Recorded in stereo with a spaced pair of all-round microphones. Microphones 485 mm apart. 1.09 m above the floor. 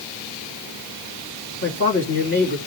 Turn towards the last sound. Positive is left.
turn(degrees=25)  # may be behind; listen again after turning